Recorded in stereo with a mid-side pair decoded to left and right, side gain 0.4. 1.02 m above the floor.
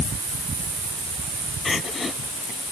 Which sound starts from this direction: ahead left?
Crying, at 1.6 s.